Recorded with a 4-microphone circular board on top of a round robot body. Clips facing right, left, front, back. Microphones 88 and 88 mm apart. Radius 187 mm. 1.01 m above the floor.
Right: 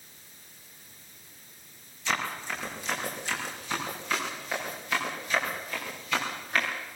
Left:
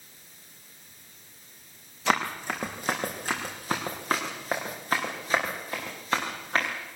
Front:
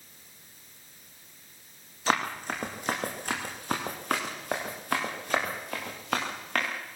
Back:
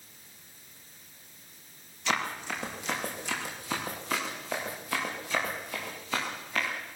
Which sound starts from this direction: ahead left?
Running footsteps, at 2.1 s.